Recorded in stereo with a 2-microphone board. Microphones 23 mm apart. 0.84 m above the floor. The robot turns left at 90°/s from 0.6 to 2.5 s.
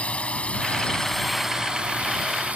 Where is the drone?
60° left (ahead or behind); by 2.6 s 75° right (ahead or behind).